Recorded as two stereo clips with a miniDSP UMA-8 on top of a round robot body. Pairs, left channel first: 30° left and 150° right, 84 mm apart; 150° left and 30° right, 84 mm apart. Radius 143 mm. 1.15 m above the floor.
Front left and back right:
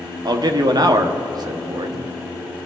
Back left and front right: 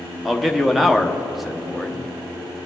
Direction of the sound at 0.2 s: 115° right.